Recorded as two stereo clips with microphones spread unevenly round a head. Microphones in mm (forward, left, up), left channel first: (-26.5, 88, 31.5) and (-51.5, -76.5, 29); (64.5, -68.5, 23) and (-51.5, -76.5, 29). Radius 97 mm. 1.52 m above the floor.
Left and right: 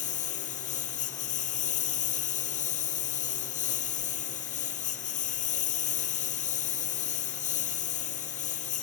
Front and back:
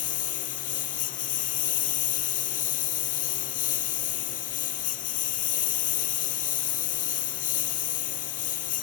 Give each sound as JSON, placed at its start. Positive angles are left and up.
{"t": 0.0, "sound": "a lawn mower", "azimuth_deg": 30}